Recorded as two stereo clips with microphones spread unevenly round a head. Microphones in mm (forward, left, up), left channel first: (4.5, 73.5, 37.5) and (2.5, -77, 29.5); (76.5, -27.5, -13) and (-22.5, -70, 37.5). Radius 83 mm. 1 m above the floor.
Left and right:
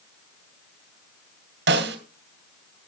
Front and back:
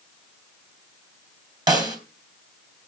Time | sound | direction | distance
1.7 | a snare drum | 110° right | 2.5 m